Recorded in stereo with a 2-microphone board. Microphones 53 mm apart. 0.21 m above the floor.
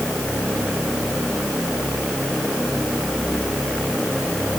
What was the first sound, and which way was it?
Only background noise.